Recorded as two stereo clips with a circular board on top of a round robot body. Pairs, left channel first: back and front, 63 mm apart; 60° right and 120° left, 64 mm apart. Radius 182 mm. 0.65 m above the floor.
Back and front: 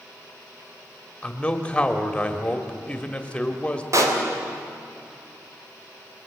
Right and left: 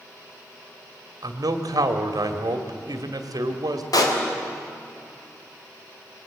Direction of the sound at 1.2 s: 105° left.